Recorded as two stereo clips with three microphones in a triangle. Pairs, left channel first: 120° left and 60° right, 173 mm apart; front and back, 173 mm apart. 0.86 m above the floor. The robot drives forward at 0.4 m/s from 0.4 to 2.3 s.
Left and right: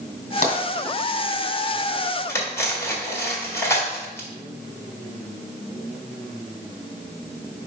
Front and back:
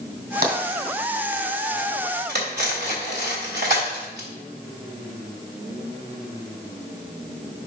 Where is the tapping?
160° left, 2 m.